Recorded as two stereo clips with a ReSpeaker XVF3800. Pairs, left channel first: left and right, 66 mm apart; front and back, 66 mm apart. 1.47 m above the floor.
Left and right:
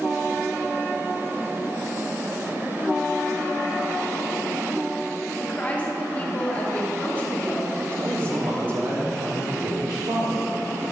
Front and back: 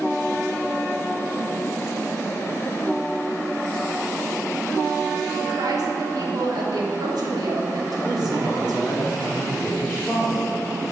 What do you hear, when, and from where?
5.4 s a woman speaking: 160° left, 1.3 m
8.0 s a man speaking: 75° right, 1.1 m